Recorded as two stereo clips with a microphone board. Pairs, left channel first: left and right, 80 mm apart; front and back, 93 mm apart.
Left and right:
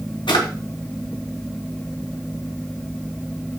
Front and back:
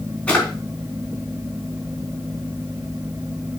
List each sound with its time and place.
0.3 s a drawer: 80° left, 3.5 m